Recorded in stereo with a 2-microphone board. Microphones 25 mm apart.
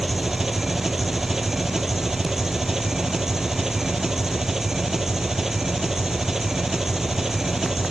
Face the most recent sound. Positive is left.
turn(degrees=-15)  # may be behind; listen again after turning